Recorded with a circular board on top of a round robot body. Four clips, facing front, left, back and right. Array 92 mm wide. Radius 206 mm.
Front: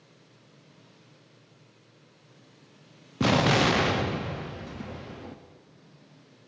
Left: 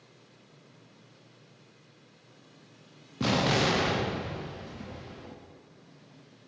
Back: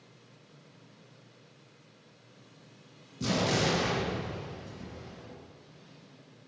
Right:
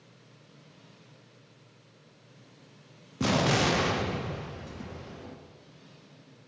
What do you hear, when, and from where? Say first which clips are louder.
3.2 s an explosion: right 1 dB, front 6 dB; 5° right, 0.5 m